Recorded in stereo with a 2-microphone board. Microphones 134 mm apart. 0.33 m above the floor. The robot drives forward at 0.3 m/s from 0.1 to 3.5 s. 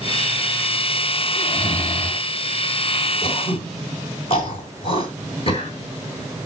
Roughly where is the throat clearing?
Left.